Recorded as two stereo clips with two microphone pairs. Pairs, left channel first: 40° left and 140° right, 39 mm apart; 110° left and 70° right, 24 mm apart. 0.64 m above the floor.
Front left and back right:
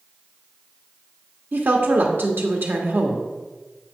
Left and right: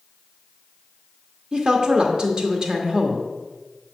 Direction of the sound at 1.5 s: 120° right.